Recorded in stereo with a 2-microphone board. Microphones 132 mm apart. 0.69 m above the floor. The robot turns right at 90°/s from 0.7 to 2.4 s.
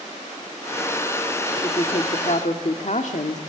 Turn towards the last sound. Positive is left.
turn(degrees=100)